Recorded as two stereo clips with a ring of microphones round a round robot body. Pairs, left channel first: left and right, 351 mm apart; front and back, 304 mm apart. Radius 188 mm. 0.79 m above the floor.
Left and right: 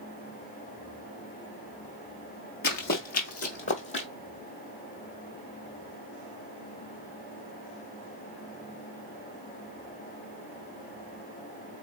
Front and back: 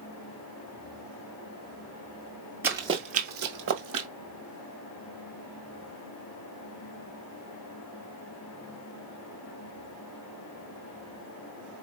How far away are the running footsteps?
About 0.8 m.